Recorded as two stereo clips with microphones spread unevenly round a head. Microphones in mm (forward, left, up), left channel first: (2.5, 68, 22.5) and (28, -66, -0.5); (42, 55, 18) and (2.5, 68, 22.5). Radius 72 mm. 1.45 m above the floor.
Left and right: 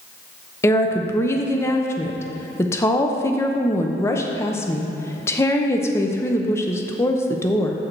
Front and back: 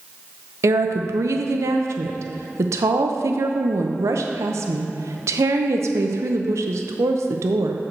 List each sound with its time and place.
0.6 s a woman speaking: 175° left, 0.6 m